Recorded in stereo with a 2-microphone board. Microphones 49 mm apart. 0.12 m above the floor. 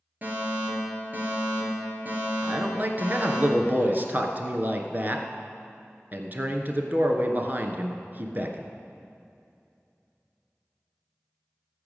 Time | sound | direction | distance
0.2 | a fire alarm | 35° right (ahead or behind) | 3.5 m
2.4 | a man speaking | 40° right (ahead or behind) | 1.4 m